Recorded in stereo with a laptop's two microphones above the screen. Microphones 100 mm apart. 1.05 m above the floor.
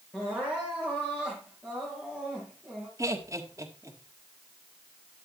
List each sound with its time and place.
0.1 s crying: 20° left (ahead or behind), 5 m
3.0 s laughter: 30° right (ahead or behind), 1.7 m